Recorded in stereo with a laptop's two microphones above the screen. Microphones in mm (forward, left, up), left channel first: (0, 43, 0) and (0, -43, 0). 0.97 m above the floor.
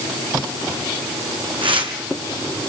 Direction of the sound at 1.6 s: 75° right (ahead or behind).